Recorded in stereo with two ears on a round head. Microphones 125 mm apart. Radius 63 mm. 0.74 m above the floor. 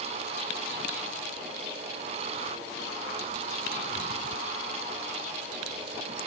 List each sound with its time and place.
Only background noise.